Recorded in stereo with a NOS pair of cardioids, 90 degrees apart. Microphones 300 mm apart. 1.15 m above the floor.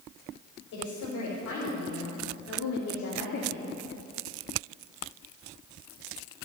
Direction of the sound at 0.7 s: 70° left.